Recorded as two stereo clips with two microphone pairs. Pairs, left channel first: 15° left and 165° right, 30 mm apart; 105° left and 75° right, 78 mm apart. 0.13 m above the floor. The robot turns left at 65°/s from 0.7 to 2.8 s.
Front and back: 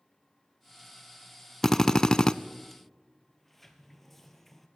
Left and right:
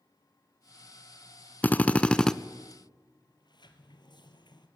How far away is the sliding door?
About 1.8 m.